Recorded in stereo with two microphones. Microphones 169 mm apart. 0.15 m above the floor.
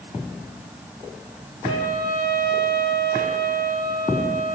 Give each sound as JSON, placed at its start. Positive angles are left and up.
{"t": 1.6, "sound": "a trumpet", "side_deg": -65, "distance_m": 2.5}